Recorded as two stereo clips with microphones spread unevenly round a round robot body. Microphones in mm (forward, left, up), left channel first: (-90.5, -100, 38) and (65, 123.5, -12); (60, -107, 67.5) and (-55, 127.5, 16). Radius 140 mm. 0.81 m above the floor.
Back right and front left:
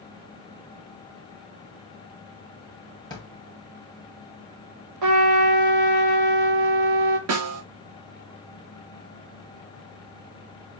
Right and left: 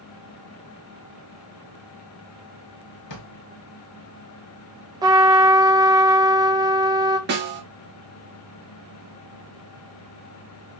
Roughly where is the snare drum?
Left.